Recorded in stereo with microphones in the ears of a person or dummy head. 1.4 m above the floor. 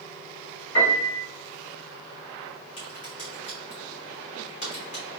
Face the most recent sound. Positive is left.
turn(degrees=35)  # may be behind; listen again after turning